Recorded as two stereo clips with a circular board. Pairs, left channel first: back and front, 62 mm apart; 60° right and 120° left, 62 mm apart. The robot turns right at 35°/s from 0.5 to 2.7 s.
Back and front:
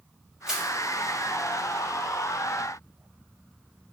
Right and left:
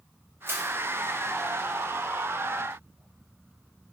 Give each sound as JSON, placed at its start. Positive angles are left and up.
{"t": 0.5, "sound": "crushing", "azimuth_deg": 75, "distance_m": 1.0}